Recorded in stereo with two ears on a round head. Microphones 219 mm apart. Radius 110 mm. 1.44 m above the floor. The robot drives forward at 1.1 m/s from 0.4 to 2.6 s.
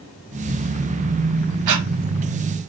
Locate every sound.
1.7 s breathing: 90° right, 0.9 m; by 1.9 s 75° right (ahead or behind), 0.9 m